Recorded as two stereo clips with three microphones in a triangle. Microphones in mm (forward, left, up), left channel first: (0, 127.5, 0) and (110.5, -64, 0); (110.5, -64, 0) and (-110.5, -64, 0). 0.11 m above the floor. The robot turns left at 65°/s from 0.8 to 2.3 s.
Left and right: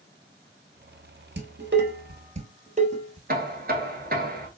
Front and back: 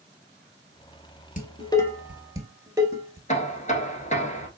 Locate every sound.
1.4 s dishes clattering: 45° right, 1.2 m; by 3.2 s 105° right, 1.2 m
3.3 s knocking: 40° right, 1.0 m